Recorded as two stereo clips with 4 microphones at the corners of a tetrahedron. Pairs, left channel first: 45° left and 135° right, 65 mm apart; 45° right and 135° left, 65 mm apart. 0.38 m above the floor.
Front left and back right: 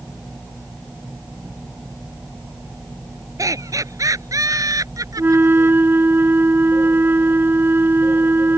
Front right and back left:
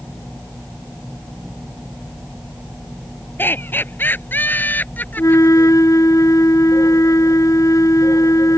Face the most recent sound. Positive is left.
turn(degrees=-80)